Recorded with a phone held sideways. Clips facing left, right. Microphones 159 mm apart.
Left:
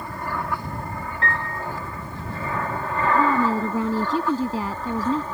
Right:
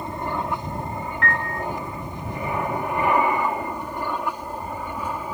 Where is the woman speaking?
90° left.